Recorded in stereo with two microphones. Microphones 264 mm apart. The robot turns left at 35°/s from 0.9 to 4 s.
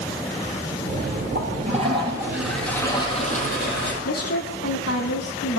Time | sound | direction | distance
1.4 | a toilet flushing | 140° right | 9.5 m
4.0 | a woman speaking | 65° left (ahead or behind) | 2.5 m